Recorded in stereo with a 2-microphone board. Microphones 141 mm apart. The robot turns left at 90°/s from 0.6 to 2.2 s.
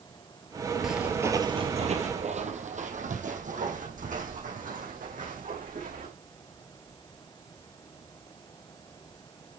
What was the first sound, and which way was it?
Footsteps, centre (ahead or behind).